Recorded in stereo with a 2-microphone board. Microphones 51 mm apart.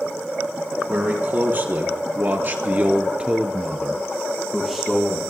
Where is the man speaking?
35° right (ahead or behind), 3.5 m; by 5.2 s 5° left (ahead or behind), 4 m.